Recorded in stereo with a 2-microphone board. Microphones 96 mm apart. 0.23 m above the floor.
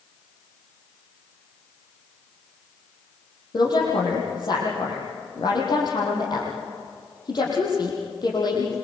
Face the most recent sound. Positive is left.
turn(degrees=45)  # may be behind; listen again after turning